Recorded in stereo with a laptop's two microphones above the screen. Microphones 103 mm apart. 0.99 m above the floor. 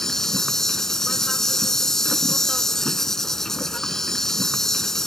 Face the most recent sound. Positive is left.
turn(degrees=5)  # may be behind; listen again after turning